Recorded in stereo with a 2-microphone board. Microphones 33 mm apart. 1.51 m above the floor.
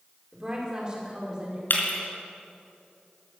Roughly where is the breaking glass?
Left.